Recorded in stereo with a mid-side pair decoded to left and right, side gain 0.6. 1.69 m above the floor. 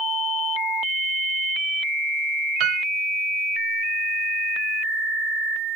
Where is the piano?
65° right.